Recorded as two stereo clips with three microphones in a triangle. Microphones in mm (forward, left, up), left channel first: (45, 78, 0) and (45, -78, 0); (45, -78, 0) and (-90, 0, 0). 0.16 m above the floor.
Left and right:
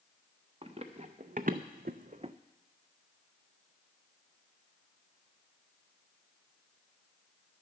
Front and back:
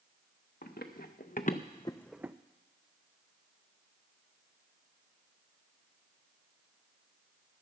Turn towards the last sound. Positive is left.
turn(degrees=-140)